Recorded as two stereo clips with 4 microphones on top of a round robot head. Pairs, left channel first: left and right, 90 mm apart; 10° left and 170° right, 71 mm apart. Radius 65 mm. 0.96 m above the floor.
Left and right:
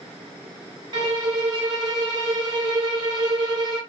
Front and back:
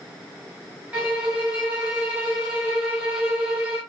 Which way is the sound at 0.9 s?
95° right.